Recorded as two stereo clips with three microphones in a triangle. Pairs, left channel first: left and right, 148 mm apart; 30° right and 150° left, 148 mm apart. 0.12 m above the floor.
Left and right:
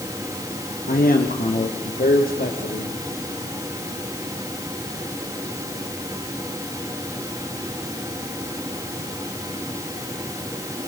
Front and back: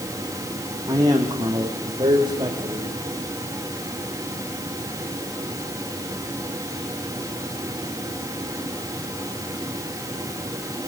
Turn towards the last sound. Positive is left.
turn(degrees=95)